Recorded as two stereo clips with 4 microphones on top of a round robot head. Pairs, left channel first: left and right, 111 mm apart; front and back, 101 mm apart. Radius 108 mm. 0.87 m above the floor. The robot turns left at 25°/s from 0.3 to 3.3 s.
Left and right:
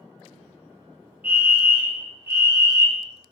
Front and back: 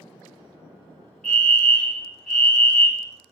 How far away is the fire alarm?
About 1.4 m.